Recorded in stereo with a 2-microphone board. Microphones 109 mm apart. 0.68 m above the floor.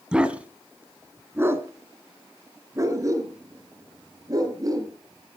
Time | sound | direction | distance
0.1 | a dog barking | 10° right (ahead or behind) | 1.5 m